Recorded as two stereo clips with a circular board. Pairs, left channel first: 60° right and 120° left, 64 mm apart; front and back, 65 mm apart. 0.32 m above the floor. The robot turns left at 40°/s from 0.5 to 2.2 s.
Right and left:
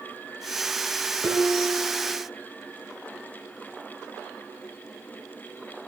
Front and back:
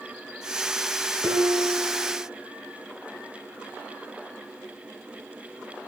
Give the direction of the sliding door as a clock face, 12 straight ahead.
I don't hear a sliding door.